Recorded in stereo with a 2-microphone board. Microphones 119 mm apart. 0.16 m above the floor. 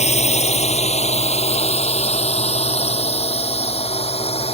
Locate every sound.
0.0 s a drone: 65° left (ahead or behind); by 4.5 s 55° left (ahead or behind)